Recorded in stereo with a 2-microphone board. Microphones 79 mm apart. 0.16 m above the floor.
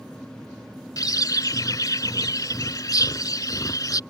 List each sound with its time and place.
1.0 s a bird: 50° left (ahead or behind)